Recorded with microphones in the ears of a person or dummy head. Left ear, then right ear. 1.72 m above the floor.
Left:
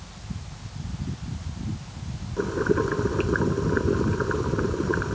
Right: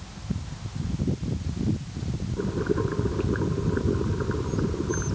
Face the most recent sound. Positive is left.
turn(degrees=70)  # may be behind; listen again after turning